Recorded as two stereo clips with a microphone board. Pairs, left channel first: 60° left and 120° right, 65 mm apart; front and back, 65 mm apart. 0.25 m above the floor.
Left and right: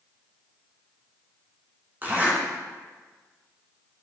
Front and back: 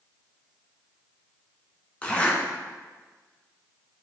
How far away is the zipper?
About 2.5 m.